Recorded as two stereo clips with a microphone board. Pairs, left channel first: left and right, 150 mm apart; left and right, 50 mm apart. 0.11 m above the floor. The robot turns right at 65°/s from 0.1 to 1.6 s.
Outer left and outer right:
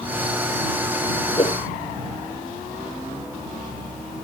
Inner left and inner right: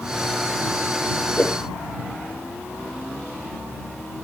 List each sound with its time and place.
1.4 s a whoosh: 35° left (ahead or behind); by 1.6 s 50° left (ahead or behind)